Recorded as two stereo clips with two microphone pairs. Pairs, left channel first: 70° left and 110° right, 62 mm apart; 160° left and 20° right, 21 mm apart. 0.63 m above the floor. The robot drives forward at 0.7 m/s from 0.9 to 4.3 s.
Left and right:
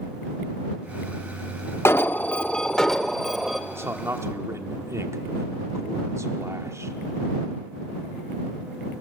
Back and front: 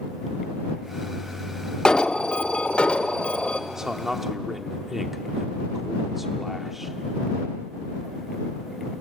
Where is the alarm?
110° left, 0.6 m; by 3.6 s 160° left, 1.5 m.